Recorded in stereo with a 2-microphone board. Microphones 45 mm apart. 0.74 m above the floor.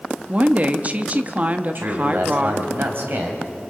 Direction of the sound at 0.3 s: 35° right (ahead or behind).